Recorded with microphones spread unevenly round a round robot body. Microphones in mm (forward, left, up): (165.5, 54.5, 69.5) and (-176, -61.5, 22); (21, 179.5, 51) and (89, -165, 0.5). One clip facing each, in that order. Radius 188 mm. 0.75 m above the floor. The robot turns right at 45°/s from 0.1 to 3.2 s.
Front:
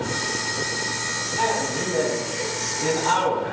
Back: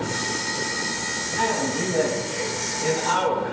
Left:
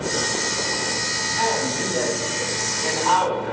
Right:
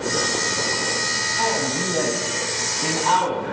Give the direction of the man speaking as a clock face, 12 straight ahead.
3 o'clock.